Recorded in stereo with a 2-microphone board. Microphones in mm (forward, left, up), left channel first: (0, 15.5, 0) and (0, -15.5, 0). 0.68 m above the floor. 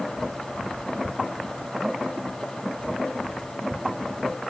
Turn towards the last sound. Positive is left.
No sound to turn to.